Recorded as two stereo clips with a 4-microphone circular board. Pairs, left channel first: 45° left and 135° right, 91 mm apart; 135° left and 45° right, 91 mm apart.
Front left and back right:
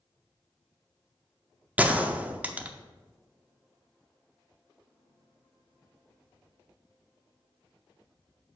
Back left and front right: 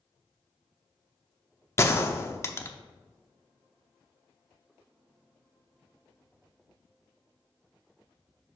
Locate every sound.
1.8 s a gunshot: 165° left, 0.5 m